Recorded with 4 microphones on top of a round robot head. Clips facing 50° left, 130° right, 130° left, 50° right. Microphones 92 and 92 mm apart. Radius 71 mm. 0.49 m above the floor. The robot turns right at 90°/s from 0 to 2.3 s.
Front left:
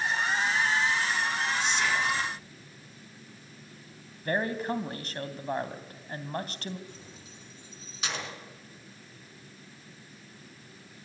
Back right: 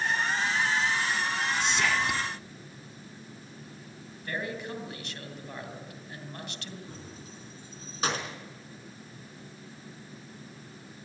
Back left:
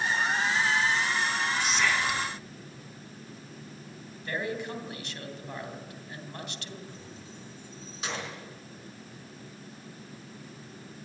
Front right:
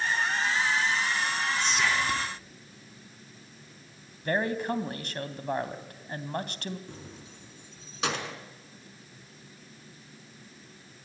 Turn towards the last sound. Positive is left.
turn(degrees=-80)